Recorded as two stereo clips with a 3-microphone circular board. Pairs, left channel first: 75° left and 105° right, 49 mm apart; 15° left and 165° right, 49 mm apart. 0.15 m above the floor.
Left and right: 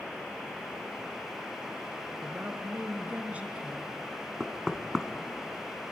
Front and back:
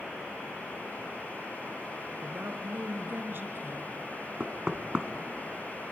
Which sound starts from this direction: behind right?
A woman speaking, at 2.2 s.